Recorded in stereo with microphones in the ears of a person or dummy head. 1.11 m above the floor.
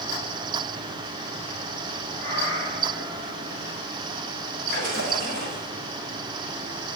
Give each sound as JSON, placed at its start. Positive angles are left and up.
{"t": 2.2, "sound": "a cat meowing", "side_deg": 20, "distance_m": 8.0}
{"t": 4.7, "sound": "a splash", "side_deg": -50, "distance_m": 7.0}